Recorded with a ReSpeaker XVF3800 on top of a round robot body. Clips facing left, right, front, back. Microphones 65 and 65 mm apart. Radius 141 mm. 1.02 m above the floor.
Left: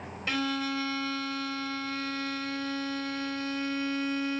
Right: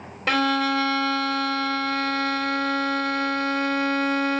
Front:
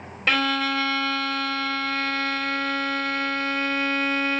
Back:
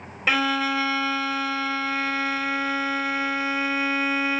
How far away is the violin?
About 0.7 m.